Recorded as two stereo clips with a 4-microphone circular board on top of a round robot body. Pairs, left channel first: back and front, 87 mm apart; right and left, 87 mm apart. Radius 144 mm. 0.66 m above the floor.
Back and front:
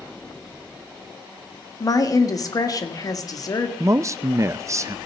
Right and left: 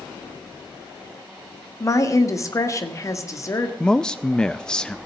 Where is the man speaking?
15° right, 0.6 m.